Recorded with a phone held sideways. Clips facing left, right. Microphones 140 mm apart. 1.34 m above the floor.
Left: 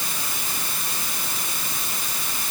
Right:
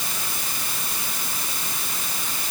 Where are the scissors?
I don't hear scissors.